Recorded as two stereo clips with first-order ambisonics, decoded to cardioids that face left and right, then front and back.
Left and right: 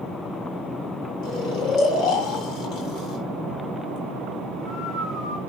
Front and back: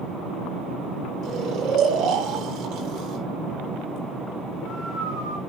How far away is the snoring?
About 3.5 m.